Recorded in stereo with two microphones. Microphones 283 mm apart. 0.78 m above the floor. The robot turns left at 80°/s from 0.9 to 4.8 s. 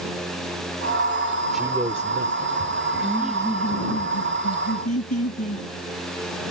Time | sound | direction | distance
1.5 | a man speaking | straight ahead | ?
3.0 | laughter | 155° right | ?